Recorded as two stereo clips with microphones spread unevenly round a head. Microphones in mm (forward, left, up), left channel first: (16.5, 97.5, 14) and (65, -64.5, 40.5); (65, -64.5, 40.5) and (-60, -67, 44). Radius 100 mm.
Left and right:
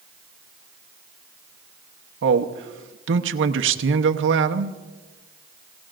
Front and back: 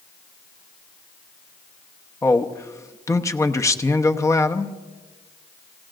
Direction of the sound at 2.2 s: 65° right.